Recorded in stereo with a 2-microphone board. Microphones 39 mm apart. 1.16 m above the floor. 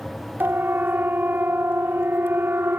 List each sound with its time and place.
0.4 s a siren: 65° right (ahead or behind); by 2.8 s 80° right